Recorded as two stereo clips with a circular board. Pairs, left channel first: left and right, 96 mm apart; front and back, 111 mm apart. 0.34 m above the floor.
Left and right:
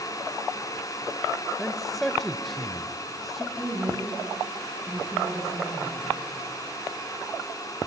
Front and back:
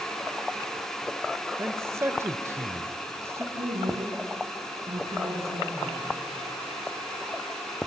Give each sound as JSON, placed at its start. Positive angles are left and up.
{"t": 1.6, "sound": "a man speaking", "azimuth_deg": 180, "distance_m": 1.0}
{"t": 3.5, "sound": "a woman speaking", "azimuth_deg": -175, "distance_m": 6.0}